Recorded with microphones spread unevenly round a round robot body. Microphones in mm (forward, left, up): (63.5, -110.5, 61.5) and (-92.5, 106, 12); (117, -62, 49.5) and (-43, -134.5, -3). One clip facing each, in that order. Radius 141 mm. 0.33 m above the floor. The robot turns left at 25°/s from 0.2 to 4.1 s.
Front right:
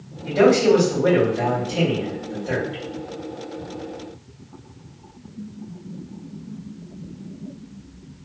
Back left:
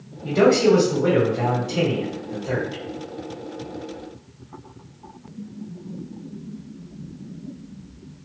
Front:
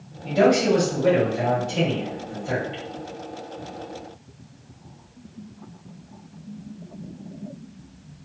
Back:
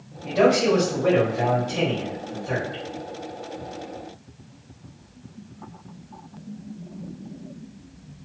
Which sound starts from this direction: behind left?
A man speaking, at 0.2 s.